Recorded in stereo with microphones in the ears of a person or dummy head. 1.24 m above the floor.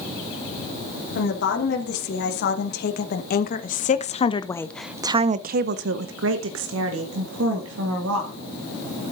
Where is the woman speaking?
60° left (ahead or behind), 3 m; by 8.3 s 85° right, 2.5 m.